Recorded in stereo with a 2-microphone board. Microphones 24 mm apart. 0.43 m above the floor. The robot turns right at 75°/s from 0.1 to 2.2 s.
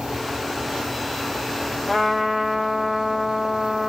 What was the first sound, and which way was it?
A trumpet, centre (ahead or behind).